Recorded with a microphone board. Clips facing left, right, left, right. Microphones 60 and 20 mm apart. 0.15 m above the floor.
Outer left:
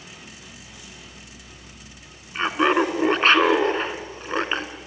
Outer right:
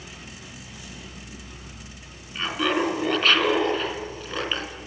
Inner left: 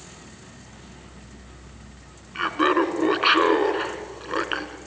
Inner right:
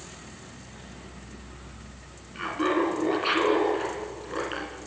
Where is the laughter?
35° left (ahead or behind), 2 m.